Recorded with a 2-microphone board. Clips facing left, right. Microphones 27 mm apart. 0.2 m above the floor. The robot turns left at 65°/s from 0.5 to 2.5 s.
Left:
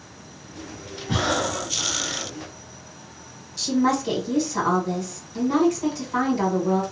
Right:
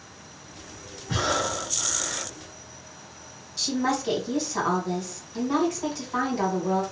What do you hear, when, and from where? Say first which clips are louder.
1.1 s breathing: left 2 dB; 80° left, 1.9 m; by 2.3 s straight ahead, 1.9 m
3.6 s a woman speaking: left 4 dB; 10° right (ahead or behind), 1.4 m